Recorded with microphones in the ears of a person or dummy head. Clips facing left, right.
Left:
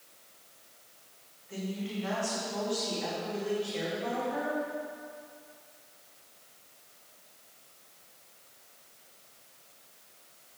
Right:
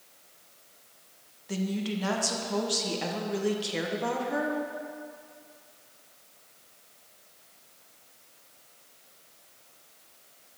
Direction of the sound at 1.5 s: 70° right (ahead or behind).